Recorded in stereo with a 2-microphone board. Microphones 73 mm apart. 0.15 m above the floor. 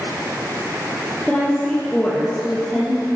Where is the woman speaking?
15° left (ahead or behind), 3 m.